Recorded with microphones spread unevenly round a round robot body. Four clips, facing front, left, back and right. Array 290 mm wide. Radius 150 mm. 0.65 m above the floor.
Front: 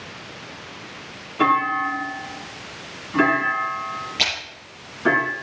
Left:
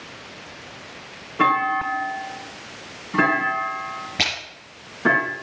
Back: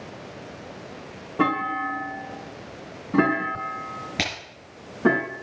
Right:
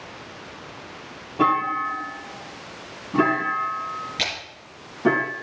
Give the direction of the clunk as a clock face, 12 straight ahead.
5 o'clock.